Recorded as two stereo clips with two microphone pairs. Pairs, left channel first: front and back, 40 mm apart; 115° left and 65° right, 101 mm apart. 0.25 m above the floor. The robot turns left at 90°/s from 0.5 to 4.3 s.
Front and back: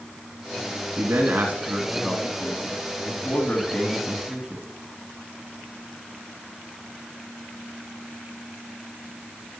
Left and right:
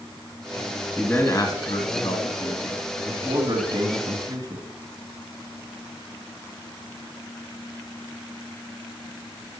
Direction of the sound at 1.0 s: 165° right.